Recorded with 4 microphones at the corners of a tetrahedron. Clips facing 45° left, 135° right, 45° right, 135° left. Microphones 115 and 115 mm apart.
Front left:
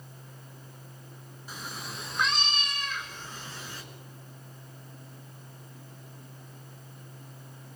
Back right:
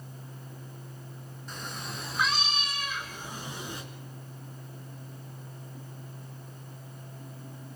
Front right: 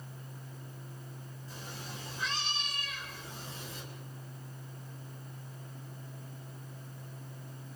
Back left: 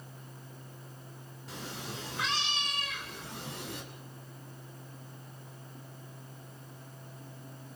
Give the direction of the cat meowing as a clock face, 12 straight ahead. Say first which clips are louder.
Back right 1 dB, back left 5 dB; 8 o'clock.